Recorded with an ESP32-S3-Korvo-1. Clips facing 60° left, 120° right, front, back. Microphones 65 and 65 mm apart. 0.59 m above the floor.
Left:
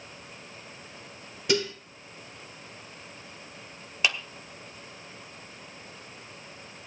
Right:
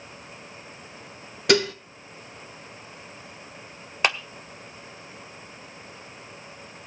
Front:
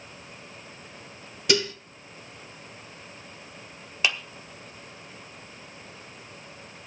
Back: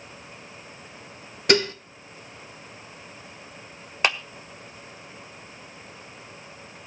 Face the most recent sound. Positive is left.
turn(degrees=-150)